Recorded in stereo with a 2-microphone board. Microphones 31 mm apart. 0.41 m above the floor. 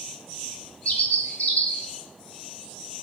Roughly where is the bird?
Left.